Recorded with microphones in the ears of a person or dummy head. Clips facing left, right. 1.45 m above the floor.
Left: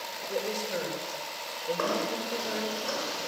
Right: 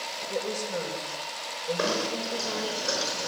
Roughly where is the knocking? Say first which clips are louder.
Right 2 dB; right.